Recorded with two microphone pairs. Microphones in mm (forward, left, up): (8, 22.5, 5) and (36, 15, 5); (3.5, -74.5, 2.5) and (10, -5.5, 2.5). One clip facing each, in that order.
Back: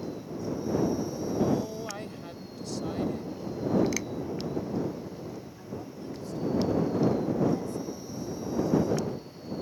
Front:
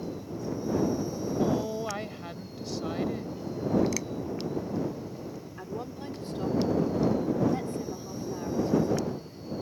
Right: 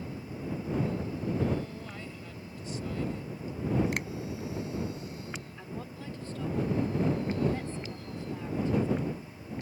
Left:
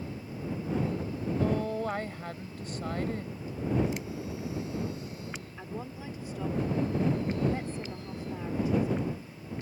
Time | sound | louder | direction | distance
1.4 | a woman speaking | front 1 dB, left 3 dB | 50° left | ?
3.9 | a finger snap | back 1 dB, right 2 dB | 120° right | ?
5.6 | a woman speaking | front 3 dB, left 2 dB | 10° left | ?